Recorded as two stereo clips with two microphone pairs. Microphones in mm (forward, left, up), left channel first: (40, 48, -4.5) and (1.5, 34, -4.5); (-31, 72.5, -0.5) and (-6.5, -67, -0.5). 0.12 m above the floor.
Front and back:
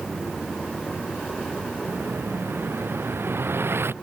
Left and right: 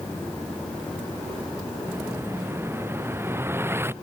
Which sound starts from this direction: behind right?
An explosion, at 1.9 s.